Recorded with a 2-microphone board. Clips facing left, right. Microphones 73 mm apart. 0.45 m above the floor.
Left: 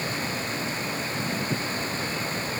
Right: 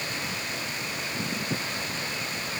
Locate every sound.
Only background noise.